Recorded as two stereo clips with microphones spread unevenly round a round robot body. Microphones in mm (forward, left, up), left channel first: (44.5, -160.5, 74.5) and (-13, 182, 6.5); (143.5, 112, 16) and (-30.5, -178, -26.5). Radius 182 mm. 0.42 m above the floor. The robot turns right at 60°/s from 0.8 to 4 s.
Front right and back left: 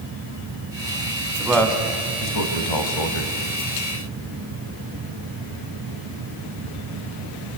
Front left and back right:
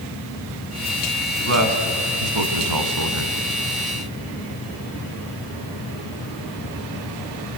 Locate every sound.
1.4 s a man speaking: 175° left, 3 m; by 3.4 s 65° right, 3 m